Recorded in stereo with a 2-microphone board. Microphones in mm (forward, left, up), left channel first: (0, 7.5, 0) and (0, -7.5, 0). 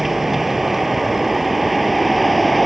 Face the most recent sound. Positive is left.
turn(degrees=5)  # may be behind; listen again after turning